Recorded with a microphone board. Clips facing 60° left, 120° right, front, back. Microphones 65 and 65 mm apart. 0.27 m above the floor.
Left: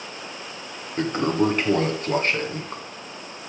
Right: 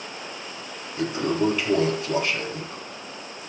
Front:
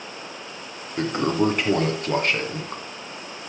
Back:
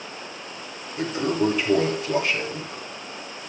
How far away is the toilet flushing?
About 2.5 m.